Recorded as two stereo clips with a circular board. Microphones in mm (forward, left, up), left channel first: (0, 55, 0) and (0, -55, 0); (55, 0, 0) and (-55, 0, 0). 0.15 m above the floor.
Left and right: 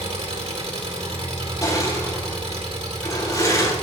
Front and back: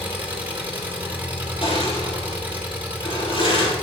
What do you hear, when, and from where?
0.0 s an engine running: 105° right, 3 m
1.6 s crushing: 30° left, 4.5 m